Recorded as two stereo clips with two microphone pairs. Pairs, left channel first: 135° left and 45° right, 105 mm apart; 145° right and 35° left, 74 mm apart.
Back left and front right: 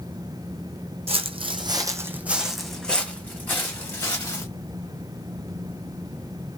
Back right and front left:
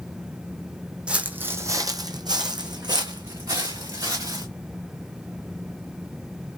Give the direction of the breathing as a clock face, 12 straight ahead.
No breathing in this recording.